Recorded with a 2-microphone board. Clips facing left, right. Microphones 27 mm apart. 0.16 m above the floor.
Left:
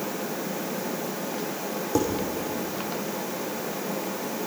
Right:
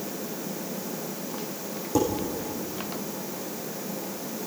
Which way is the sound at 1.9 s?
15° left (ahead or behind).